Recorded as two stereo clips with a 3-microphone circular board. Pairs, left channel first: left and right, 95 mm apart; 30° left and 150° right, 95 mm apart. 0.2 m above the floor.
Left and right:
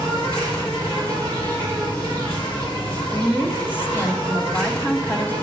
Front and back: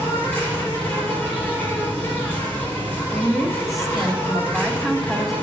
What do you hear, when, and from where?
0.0 s an insect: 95° left, 3.5 m
3.1 s a woman speaking: 120° left, 1.1 m